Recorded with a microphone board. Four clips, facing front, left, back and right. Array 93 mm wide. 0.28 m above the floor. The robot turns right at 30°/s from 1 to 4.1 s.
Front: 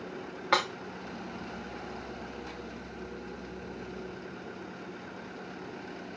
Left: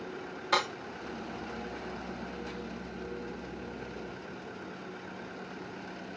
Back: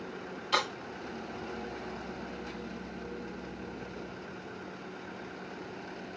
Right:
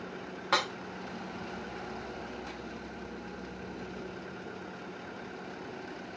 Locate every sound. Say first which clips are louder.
0.5 s breaking glass: left 1 dB, front 3 dB; 20° right, 3 m